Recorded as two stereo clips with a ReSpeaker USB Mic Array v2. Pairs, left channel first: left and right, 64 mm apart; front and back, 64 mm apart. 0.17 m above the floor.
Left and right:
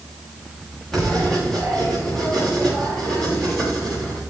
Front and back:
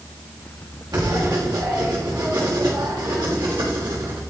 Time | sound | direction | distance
0.9 | writing | 170° left | 7 m